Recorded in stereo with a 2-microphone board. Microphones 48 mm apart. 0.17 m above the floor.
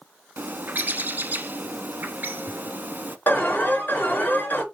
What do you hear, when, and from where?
0.4 s a bird: 45° right (ahead or behind), 0.6 m
3.3 s an alarm: 40° left (ahead or behind), 3 m